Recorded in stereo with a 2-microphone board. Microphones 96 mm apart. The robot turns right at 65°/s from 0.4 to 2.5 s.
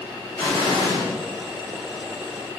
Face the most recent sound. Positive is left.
turn(degrees=160)